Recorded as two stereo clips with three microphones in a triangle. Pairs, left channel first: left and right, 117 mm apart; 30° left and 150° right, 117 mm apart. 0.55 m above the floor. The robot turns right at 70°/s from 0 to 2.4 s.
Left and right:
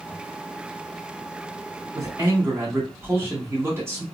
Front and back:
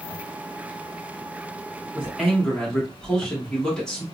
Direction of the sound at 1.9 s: 80° right.